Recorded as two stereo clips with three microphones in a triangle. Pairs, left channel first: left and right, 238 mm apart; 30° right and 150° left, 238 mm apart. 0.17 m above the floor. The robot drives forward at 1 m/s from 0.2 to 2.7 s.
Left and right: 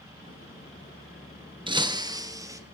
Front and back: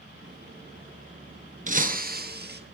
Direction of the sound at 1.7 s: 155° right.